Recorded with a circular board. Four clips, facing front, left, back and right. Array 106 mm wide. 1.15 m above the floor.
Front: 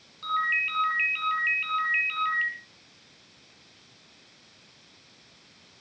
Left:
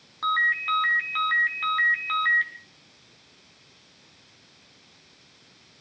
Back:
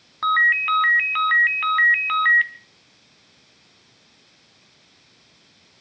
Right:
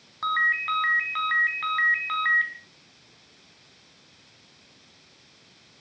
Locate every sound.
0.2 s a ringtone: 175° right, 3 m